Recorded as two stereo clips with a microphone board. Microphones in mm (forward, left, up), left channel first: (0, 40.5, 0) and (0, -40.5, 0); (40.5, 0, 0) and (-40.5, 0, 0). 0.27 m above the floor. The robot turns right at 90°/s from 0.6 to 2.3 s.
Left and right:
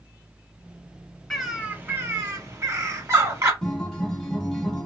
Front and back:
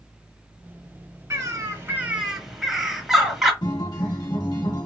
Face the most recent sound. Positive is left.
turn(degrees=10)